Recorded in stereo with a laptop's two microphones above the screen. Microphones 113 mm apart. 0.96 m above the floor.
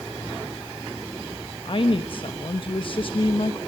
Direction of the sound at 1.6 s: 50° left (ahead or behind).